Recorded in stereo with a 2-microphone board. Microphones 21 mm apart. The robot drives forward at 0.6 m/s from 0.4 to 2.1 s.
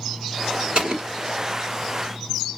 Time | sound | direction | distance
0.8 | an explosion | 45° right (ahead or behind) | 2.0 m